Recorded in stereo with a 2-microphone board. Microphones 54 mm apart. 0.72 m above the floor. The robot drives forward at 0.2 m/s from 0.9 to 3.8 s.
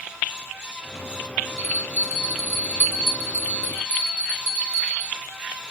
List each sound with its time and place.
1.6 s a bell: 40° left (ahead or behind), 0.9 m; by 5.1 s 25° left (ahead or behind), 1.3 m